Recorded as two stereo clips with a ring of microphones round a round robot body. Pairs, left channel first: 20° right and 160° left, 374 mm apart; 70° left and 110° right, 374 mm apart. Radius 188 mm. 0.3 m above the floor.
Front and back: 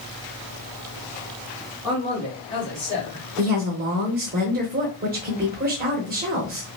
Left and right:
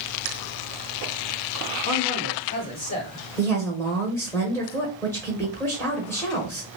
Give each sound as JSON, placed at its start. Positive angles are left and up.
{"t": 1.8, "sound": "a man speaking", "azimuth_deg": 50, "distance_m": 1.5}
{"t": 3.4, "sound": "a woman speaking", "azimuth_deg": 140, "distance_m": 0.9}